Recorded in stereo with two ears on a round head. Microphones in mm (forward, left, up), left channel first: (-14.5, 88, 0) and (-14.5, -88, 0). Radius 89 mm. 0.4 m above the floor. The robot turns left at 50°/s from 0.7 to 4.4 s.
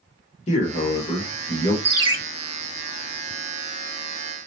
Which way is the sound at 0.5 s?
105° left.